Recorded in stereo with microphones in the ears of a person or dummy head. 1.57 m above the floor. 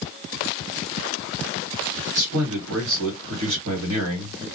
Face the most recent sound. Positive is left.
turn(degrees=-70)  # may be behind; listen again after turning